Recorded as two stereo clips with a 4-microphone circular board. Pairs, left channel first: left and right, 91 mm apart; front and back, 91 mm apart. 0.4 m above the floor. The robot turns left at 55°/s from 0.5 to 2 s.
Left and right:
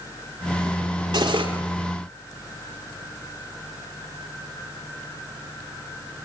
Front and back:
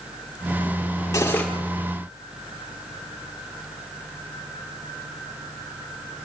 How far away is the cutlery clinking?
About 5 m.